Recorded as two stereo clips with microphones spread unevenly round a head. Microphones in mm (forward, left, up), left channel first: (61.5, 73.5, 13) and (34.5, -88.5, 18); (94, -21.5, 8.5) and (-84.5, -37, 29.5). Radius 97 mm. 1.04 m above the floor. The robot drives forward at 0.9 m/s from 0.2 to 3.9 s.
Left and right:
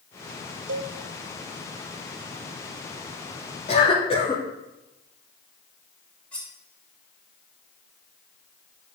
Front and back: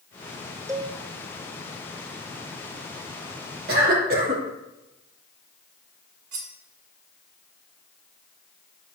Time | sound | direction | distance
0.7 | a cowbell | 100° right | 1.3 m
3.7 | a cough | 140° left | 2.5 m
6.3 | cutlery clinking | 165° left | 2 m